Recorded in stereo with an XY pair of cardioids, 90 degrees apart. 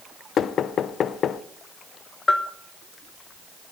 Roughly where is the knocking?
Ahead left.